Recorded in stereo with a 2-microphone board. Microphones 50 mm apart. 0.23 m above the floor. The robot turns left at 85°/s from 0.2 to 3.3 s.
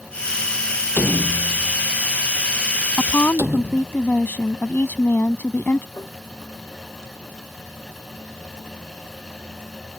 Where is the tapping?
85° left.